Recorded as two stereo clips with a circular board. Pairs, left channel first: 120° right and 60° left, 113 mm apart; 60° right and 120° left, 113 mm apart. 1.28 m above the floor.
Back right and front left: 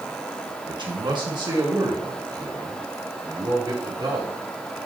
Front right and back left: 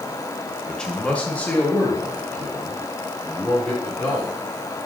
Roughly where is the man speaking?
Ahead left.